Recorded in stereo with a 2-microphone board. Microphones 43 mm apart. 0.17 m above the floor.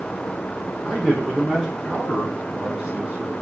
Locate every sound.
0.8 s a man speaking: 5° right (ahead or behind), 5 m; by 3.3 s 25° right (ahead or behind), 4 m